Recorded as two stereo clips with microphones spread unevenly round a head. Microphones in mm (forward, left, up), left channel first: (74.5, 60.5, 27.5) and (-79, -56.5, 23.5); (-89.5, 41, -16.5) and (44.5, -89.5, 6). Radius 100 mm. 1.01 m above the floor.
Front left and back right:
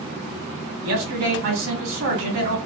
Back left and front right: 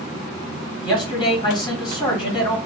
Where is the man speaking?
160° right, 2.5 m.